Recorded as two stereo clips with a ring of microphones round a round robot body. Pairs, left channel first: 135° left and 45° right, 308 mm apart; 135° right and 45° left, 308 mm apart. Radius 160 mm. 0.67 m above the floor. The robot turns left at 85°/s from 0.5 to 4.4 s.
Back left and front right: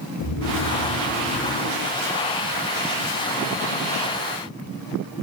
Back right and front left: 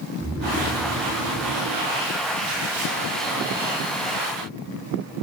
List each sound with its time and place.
0.2 s snoring: 125° left, 6 m; by 2.6 s 55° right, 6 m